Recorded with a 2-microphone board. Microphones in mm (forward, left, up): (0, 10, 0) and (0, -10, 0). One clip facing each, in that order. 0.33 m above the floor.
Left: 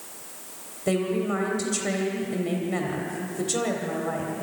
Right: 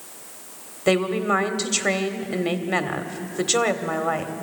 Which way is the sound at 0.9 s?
45° right (ahead or behind).